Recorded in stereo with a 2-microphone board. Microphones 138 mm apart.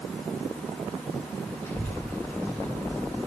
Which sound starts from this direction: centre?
A child speaking, at 1.6 s.